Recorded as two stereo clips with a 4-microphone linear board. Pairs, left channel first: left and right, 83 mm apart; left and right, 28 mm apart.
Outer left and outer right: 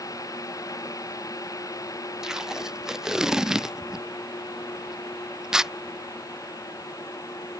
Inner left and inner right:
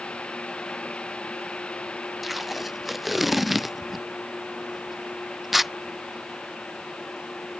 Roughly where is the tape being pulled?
Centre.